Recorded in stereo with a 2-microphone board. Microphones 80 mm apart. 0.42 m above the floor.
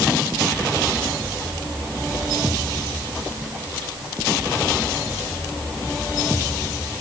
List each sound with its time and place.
Only background noise.